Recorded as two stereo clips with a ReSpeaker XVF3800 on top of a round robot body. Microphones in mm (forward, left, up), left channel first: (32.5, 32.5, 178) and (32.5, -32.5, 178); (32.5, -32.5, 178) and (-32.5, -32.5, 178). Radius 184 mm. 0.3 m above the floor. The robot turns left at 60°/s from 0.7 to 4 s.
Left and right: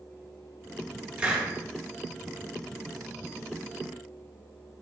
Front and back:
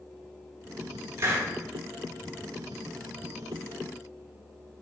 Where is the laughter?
I don't hear laughter.